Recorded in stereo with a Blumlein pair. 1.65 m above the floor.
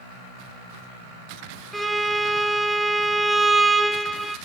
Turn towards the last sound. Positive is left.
turn(degrees=-5)